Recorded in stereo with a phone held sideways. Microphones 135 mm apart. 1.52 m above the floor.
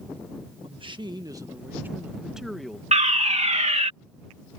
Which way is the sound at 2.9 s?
60° right (ahead or behind).